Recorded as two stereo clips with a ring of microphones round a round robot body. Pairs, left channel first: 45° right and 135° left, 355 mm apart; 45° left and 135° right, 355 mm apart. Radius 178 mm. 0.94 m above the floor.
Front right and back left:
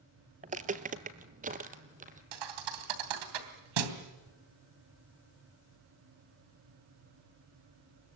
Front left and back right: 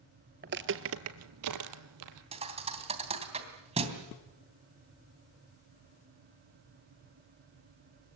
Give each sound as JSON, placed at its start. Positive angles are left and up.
{"t": 0.4, "sound": "footsteps", "azimuth_deg": -170, "distance_m": 1.0}
{"t": 2.3, "sound": "a thud", "azimuth_deg": 150, "distance_m": 3.0}